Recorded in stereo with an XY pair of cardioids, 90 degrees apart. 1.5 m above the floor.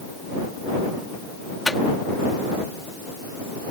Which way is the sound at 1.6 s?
20° left.